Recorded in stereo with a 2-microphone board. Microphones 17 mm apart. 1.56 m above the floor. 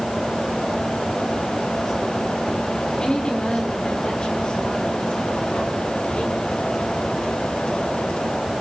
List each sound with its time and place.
3.0 s a woman speaking: 60° left (ahead or behind), 5 m; by 6.5 s 80° left, 6 m